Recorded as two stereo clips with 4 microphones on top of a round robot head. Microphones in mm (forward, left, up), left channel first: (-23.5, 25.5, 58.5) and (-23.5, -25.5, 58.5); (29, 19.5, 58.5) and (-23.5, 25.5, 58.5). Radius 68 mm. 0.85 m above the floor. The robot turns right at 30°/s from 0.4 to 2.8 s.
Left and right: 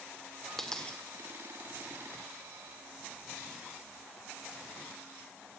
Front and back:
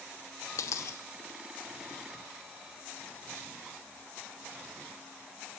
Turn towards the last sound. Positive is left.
turn(degrees=70)